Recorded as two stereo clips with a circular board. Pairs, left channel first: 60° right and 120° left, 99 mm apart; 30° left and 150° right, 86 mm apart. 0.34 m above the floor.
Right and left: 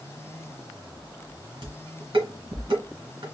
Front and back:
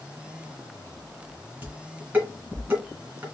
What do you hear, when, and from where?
1.6 s dishes clattering: 145° left, 2.5 m